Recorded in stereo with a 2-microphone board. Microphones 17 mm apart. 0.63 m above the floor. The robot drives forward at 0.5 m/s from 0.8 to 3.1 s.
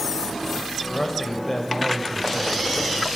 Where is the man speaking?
15° left (ahead or behind), 3.5 m; by 3.1 s 25° left (ahead or behind), 2.5 m.